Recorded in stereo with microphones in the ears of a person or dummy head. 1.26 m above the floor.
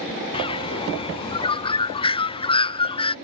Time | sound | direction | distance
0.3 | a bird | 25° left (ahead or behind) | ?